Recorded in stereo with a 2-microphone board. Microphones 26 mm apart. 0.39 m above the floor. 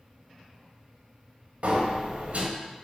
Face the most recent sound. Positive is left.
turn(degrees=-65)  # may be behind; listen again after turning